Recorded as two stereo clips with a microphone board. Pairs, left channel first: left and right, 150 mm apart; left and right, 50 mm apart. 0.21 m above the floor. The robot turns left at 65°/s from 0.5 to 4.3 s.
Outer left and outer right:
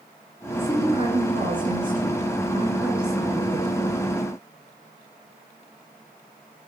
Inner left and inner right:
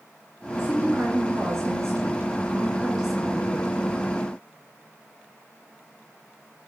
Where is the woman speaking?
15° right, 2.5 m; by 4.1 s 120° left, 2.5 m.